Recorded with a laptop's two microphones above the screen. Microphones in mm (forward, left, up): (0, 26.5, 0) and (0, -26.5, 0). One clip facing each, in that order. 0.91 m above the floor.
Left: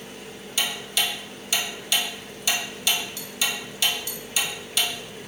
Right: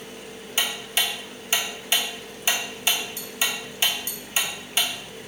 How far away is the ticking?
About 0.5 m.